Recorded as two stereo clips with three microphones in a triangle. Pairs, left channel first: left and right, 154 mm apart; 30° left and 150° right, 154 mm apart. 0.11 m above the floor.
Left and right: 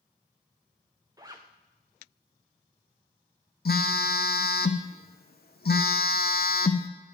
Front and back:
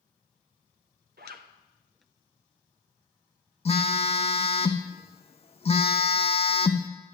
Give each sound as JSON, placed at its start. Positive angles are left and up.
{"t": 1.2, "sound": "a zipper", "azimuth_deg": -160, "distance_m": 1.8}
{"t": 3.6, "sound": "a phone buzzing", "azimuth_deg": 80, "distance_m": 1.1}